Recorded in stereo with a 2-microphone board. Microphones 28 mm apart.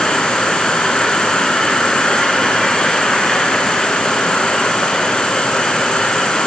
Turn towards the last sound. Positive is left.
turn(degrees=35)  # may be behind; listen again after turning